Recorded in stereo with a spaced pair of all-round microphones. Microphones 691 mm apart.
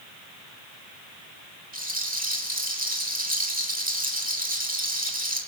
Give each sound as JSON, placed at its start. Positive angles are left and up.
{"t": 1.7, "sound": "a rattle", "side_deg": -10, "distance_m": 3.0}